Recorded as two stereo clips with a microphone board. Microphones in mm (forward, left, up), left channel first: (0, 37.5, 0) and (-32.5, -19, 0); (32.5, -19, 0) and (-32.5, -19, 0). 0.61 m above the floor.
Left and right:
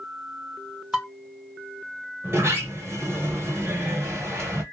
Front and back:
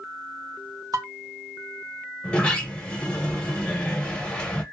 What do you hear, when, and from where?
0.9 s dishes clattering: 160° left, 1.6 m
2.2 s a sliding door: 75° right, 1.2 m